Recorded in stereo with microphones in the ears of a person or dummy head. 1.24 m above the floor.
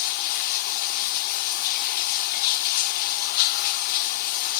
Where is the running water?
60° left (ahead or behind), 1.2 m.